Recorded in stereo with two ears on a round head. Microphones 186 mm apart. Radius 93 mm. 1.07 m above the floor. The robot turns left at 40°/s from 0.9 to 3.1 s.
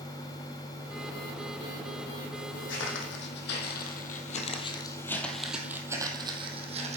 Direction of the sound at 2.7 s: 60° left (ahead or behind).